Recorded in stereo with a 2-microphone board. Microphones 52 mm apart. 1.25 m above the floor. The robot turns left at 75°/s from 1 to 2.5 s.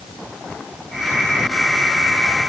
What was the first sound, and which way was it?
Only background noise.